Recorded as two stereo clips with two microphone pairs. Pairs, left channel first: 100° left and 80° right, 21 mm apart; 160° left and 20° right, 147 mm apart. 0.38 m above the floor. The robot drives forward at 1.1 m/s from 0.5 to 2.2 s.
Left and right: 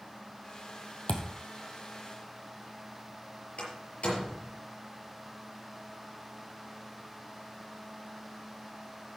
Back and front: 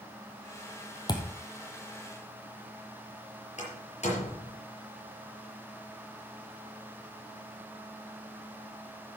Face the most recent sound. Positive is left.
turn(degrees=115)